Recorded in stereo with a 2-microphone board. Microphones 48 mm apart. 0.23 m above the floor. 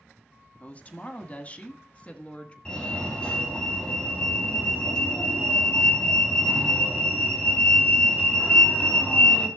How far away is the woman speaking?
About 1.1 m.